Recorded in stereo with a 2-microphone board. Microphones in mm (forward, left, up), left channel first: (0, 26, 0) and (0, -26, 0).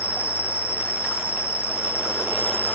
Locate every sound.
0.0 s an insect: 30° right (ahead or behind), 0.8 m